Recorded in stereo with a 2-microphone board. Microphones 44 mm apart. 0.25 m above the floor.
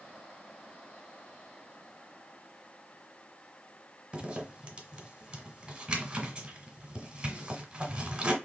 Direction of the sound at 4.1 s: 25° right (ahead or behind).